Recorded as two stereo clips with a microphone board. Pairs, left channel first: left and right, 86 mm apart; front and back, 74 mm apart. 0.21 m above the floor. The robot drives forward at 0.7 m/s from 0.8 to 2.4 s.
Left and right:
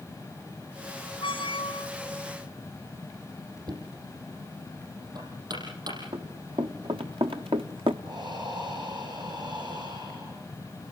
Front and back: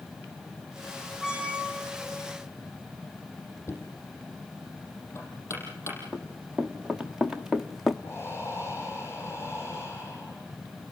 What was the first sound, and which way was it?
A squeak, 100° left.